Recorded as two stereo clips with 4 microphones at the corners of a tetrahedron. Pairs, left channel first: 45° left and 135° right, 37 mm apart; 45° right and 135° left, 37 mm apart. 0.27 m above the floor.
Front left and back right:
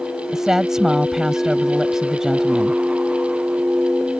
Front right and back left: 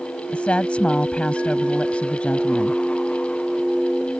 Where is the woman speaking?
65° right.